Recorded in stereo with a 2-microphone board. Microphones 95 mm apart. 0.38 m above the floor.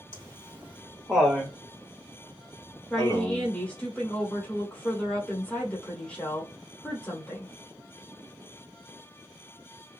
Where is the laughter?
35° right (ahead or behind), 1.0 m; by 3.5 s 35° left (ahead or behind), 1.8 m.